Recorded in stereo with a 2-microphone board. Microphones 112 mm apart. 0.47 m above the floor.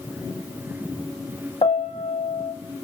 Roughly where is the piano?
Left.